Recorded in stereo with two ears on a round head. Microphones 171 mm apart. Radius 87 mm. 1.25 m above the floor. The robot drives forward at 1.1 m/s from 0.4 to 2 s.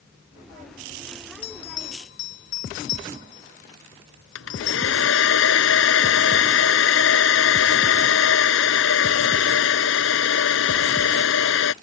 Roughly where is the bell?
Left.